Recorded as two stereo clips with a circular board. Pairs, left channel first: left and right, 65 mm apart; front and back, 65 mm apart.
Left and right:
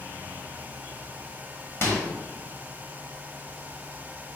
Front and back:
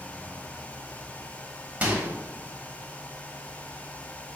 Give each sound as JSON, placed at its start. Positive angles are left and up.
{"t": 1.8, "sound": "a microwave", "azimuth_deg": 120, "distance_m": 1.0}